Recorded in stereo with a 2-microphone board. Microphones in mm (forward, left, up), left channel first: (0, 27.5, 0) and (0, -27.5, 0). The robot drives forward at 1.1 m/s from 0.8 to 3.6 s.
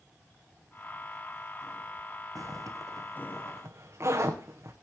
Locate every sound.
2.4 s a zipper: 80° right, 2.5 m; by 4.7 s 55° right (ahead or behind), 3 m